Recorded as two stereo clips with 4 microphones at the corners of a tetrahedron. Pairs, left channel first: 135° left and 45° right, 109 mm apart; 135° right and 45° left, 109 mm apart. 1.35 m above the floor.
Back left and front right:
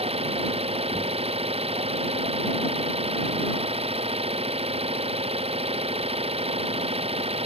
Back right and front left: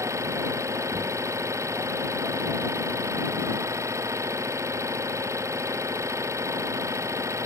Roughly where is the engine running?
Ahead.